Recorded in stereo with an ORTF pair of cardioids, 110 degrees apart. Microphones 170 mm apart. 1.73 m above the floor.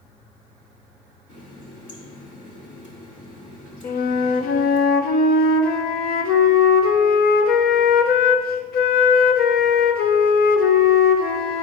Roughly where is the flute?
Ahead left.